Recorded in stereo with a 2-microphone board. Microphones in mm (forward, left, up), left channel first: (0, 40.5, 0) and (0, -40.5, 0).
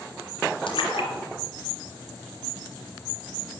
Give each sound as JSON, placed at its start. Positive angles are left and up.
{"t": 0.7, "sound": "a splash", "side_deg": 85, "distance_m": 3.5}